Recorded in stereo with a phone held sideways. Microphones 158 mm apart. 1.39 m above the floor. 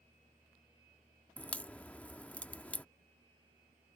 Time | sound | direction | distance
1.4 | a crack | 10° left (ahead or behind) | ?